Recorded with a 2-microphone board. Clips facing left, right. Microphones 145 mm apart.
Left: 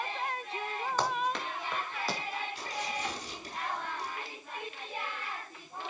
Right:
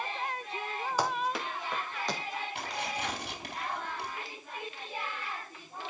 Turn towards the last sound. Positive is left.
turn(degrees=-65)  # may be behind; listen again after turning